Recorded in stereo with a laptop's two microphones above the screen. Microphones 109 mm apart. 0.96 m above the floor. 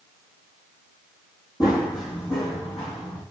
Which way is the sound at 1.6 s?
40° left (ahead or behind).